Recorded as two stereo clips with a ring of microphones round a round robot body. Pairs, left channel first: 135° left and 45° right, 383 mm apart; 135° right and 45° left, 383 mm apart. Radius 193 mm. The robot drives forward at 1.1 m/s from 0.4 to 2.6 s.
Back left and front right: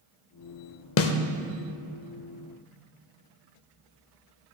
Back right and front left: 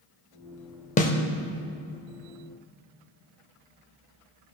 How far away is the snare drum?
About 0.6 m.